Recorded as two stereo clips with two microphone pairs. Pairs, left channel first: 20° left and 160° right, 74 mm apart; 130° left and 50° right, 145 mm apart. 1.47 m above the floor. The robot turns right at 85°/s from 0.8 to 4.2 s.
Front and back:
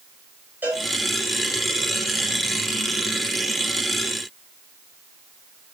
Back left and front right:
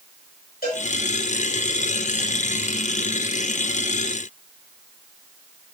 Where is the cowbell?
135° left, 3.5 m; by 0.8 s 140° left, 3.5 m.